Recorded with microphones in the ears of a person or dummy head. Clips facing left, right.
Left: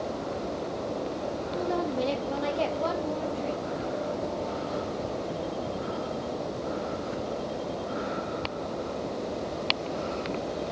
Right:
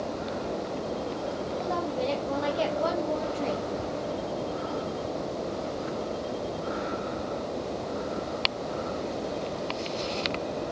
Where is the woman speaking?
35° left (ahead or behind), 2.5 m; by 3.7 s 70° right (ahead or behind), 1.8 m.